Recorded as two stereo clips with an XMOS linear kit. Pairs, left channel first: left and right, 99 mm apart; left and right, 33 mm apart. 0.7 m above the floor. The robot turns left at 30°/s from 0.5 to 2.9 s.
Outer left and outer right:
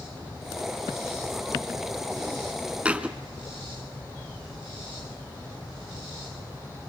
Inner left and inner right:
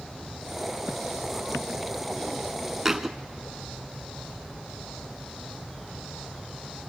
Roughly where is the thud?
Centre.